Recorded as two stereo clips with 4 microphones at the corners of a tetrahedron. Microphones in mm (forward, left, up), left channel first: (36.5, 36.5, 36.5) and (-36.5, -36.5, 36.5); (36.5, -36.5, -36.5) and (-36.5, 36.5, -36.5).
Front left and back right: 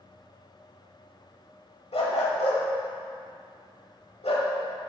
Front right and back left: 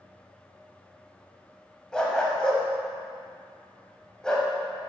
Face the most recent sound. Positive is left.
turn(degrees=35)